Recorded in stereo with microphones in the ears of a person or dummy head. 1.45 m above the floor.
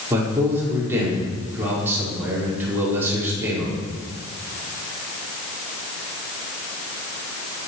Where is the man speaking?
15° right (ahead or behind), 5 m.